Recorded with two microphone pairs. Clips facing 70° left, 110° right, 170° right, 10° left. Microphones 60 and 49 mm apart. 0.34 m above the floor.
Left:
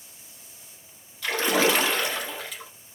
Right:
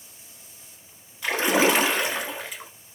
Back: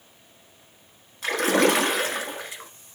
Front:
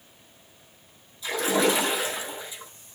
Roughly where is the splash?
Behind.